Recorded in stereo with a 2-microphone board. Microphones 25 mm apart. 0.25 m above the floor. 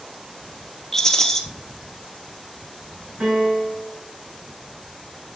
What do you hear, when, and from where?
0.9 s a rattle: 20° left (ahead or behind), 1.5 m
3.2 s a piano: 80° right, 5.5 m